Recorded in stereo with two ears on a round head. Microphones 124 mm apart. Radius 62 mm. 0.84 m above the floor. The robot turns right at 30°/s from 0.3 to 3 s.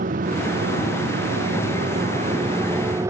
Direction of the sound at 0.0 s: 60° right (ahead or behind).